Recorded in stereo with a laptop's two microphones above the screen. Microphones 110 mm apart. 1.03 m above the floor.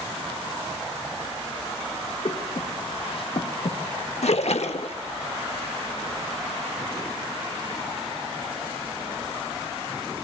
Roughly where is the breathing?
Left.